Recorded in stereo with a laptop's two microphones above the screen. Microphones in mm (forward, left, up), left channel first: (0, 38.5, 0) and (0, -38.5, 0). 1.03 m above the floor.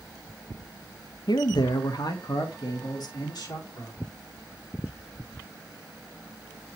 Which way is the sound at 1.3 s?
65° left (ahead or behind).